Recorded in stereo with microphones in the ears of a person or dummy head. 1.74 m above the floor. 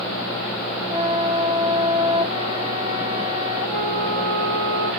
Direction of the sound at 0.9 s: 10° right (ahead or behind).